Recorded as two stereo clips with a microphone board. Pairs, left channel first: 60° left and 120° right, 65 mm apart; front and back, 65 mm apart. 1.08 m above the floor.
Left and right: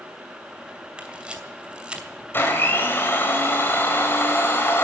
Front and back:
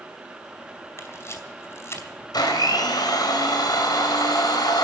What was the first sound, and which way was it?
A camera shutter, 45° right.